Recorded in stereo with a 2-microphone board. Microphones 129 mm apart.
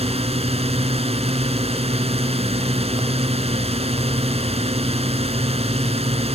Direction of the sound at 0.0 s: 50° right (ahead or behind).